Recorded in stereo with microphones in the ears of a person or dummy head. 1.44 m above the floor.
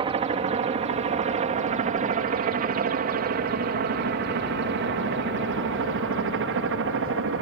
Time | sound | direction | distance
0.0 | a helicopter | 25° right (ahead or behind) | ?